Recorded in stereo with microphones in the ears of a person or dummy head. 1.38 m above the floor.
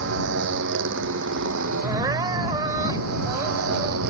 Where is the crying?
20° right (ahead or behind).